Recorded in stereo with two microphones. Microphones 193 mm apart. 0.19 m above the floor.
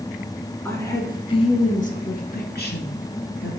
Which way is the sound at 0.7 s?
10° left (ahead or behind).